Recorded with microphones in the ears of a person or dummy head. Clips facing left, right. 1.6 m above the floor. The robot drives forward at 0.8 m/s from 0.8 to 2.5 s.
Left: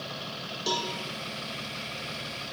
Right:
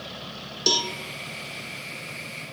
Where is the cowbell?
40° right (ahead or behind), 1.3 m; by 0.9 s 45° right (ahead or behind), 1.2 m.